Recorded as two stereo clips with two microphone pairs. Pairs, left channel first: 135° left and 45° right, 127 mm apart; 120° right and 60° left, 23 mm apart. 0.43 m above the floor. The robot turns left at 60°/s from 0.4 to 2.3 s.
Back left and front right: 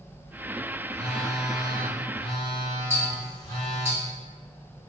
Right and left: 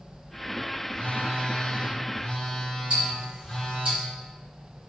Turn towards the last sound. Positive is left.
turn(degrees=25)